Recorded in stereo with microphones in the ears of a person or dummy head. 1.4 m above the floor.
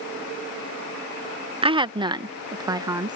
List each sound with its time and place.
1.6 s a woman speaking: 20° right (ahead or behind); by 3.2 s 15° right (ahead or behind)